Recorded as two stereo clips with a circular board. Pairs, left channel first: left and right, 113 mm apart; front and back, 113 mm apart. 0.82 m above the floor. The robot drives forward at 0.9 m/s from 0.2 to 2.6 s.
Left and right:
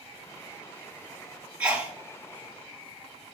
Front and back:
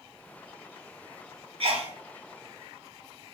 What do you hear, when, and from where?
1.6 s a sneeze: 170° right, 1.7 m